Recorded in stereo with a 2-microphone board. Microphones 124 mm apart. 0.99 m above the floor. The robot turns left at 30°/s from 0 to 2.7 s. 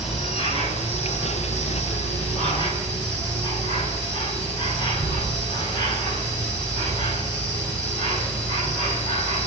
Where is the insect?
145° left, 5 m; by 9.5 s 60° left, 5 m.